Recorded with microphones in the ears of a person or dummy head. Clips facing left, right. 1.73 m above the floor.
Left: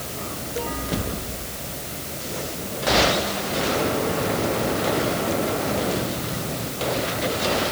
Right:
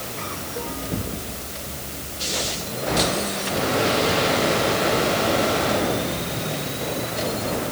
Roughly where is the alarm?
No alarm in this recording.